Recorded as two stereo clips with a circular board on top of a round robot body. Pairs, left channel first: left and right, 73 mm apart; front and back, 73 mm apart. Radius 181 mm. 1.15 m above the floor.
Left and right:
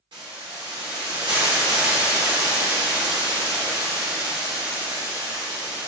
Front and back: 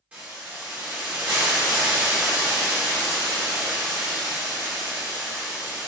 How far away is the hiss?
About 0.9 m.